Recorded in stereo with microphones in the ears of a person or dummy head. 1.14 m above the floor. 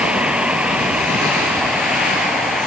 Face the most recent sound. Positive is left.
turn(degrees=5)  # may be behind; listen again after turning